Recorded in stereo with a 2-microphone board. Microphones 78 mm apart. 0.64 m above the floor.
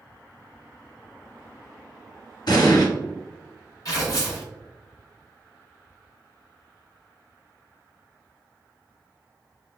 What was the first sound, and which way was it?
An explosion, 65° left (ahead or behind).